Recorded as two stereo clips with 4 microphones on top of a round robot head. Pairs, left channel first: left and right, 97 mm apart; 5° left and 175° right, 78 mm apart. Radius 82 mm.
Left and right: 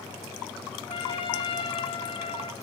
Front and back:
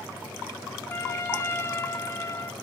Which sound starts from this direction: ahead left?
A trumpet, at 0.9 s.